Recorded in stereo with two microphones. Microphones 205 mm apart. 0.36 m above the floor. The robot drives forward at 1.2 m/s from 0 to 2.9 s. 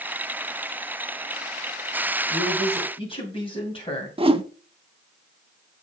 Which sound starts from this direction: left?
A man speaking, at 2.3 s.